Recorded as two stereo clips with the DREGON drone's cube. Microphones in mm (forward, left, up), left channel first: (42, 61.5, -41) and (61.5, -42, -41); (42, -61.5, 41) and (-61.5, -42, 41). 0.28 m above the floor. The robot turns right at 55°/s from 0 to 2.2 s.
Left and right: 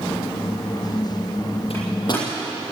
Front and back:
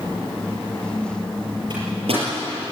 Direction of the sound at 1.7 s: 125° left.